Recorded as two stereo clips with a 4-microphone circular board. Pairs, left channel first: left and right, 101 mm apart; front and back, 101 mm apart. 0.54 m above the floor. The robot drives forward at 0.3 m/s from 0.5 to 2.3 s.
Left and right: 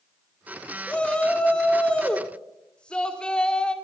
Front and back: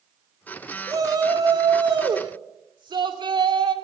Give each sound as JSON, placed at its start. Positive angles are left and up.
{"t": 0.9, "sound": "a shout", "azimuth_deg": 165, "distance_m": 1.6}